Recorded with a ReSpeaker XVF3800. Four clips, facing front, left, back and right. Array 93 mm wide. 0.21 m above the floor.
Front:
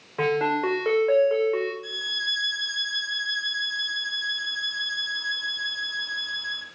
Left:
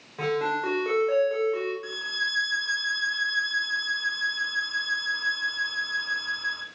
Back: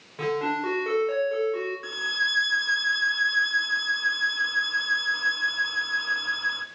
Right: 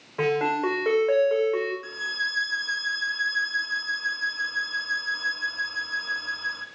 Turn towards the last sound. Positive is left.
turn(degrees=180)